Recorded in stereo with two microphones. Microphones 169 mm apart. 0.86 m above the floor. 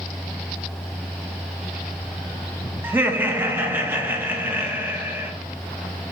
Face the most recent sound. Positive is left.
turn(degrees=-10)  # may be behind; listen again after turning